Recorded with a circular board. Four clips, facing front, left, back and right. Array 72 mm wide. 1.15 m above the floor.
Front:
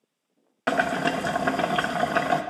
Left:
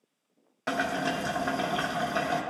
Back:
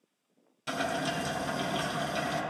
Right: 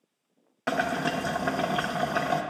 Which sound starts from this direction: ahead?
Boiling, at 0.7 s.